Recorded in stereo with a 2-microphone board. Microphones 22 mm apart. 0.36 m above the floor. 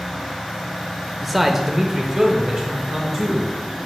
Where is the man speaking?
5° right (ahead or behind), 0.8 m; by 3.5 s 25° right (ahead or behind), 3 m.